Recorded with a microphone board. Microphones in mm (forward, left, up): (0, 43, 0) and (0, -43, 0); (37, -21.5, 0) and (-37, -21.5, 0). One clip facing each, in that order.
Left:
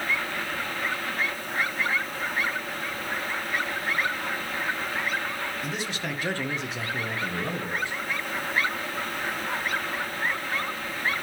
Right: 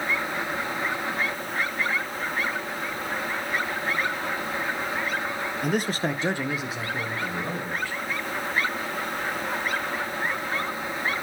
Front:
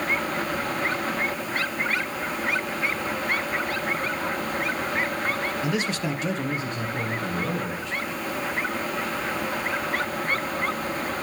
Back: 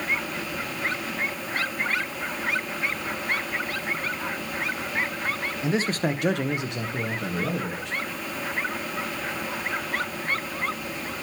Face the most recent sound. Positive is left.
turn(degrees=155)